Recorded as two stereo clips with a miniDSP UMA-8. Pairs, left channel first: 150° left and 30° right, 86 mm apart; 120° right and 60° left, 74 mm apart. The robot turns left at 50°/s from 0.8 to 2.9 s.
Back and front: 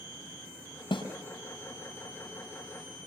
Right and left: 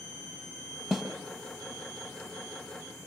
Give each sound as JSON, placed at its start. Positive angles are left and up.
{"t": 0.9, "sound": "a snare drum", "azimuth_deg": 145, "distance_m": 5.0}